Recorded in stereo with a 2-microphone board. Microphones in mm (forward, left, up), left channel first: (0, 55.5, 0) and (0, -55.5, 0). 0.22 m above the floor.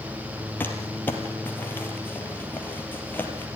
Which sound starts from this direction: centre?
Crumpling, at 0.6 s.